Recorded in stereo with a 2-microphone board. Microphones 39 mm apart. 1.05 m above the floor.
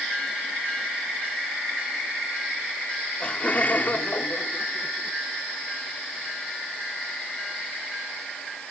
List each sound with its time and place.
3.2 s laughter: 30° left (ahead or behind); by 5.2 s 75° left (ahead or behind)